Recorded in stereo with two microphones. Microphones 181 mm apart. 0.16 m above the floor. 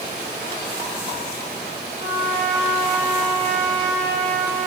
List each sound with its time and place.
2.0 s a trumpet: 40° right (ahead or behind), 5.5 m